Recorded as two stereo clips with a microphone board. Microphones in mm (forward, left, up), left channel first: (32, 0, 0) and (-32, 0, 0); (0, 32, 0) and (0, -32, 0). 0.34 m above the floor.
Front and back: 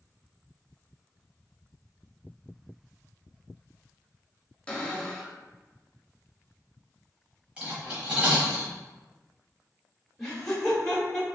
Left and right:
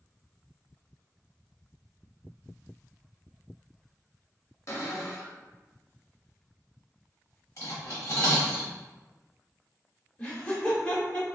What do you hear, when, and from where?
4.7 s a cupboard door: 70° left, 0.6 m
7.6 s cutlery clinking: 110° left, 1.2 m
10.2 s laughter: 75° left, 1.1 m